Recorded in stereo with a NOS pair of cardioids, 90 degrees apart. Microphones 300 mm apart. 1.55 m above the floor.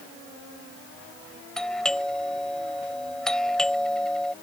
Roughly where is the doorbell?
Ahead.